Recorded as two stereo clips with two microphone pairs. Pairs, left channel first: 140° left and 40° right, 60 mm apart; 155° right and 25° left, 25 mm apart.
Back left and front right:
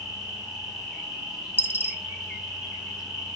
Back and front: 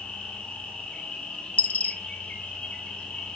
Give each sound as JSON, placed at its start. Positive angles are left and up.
{"t": 0.0, "sound": "an insect", "azimuth_deg": -120, "distance_m": 4.0}
{"t": 1.6, "sound": "a dropped coin", "azimuth_deg": -160, "distance_m": 0.6}